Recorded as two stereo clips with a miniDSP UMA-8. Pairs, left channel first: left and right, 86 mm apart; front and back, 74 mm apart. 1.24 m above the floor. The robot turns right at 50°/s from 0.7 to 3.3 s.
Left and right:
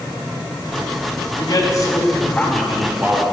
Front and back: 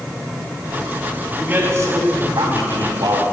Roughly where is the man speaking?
Left.